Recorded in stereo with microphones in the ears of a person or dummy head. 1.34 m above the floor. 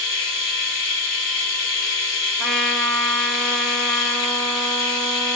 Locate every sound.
0.0 s a machine running: 60° left (ahead or behind), 0.9 m
2.4 s a trumpet: centre (ahead or behind), 1.2 m